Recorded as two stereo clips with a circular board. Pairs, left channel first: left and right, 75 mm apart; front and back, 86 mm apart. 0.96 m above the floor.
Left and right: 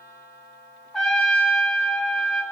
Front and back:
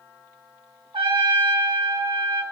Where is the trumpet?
170° left, 1.2 m.